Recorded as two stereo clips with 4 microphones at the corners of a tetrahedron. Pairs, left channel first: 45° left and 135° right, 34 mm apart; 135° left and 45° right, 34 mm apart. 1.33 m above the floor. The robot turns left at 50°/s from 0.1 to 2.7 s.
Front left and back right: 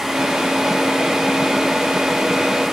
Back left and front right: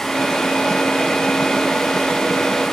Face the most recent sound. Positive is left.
No sound to turn to.